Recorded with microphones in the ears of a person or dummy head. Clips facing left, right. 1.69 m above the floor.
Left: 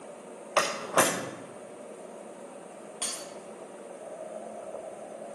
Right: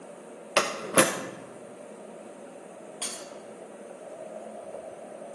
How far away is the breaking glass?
About 1.3 m.